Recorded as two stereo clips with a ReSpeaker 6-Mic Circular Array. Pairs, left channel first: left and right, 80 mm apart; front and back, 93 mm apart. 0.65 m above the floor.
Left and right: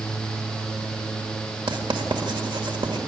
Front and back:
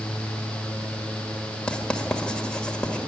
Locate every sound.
1.7 s writing: 80° right, 1.9 m